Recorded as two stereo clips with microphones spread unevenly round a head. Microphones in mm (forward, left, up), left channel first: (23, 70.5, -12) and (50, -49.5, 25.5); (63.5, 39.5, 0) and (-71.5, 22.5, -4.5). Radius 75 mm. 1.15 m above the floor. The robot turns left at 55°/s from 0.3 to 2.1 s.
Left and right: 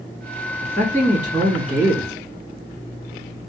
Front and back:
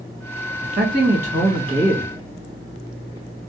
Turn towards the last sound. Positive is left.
turn(degrees=110)